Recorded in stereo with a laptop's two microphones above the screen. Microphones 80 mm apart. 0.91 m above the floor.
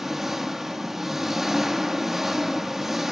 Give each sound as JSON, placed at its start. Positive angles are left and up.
{"t": 0.0, "sound": "an engine running", "side_deg": -5, "distance_m": 1.1}